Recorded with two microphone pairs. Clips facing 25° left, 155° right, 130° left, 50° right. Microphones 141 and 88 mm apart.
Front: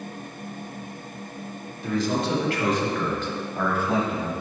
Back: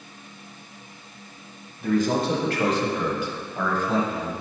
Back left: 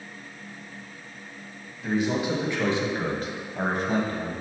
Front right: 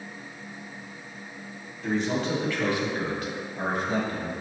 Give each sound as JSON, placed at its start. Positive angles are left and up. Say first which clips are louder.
{"t": 1.8, "sound": "a man speaking", "louder": "back 3 dB, back left 1 dB", "azimuth_deg": -145, "distance_m": 1.6}